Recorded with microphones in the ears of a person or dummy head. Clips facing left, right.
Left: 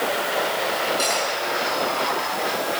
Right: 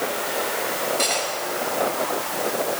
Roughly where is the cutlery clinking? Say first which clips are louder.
Left 1 dB; centre.